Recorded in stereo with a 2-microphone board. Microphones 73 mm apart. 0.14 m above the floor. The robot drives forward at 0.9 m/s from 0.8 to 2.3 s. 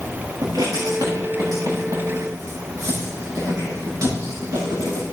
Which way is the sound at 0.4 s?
65° right (ahead or behind).